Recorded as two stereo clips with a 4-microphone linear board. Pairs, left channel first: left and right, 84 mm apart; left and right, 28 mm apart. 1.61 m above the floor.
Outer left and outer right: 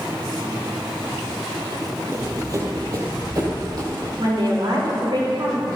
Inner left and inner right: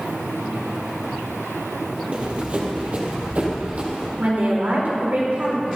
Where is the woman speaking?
75° right (ahead or behind), 5 m.